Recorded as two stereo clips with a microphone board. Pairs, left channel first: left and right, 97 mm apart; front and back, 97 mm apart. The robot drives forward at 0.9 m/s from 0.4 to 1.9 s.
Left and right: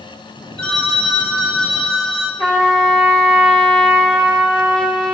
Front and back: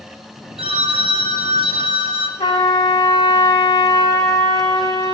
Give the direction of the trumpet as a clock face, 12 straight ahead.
12 o'clock.